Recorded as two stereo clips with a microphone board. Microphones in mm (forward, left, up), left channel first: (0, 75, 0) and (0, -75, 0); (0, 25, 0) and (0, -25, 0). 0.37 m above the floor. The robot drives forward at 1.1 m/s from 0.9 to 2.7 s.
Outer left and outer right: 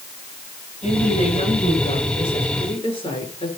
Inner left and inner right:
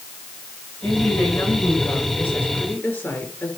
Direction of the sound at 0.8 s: 50° left (ahead or behind).